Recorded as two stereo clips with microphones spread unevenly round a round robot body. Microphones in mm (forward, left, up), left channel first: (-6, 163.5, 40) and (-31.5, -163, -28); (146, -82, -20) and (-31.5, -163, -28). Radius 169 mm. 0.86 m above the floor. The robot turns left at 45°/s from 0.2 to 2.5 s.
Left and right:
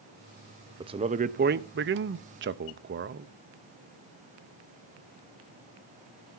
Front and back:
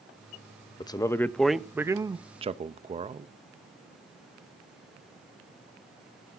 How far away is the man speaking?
About 0.6 m.